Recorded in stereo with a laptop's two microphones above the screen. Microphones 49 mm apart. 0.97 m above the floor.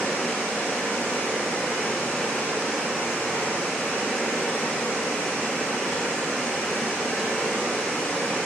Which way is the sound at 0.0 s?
35° left (ahead or behind).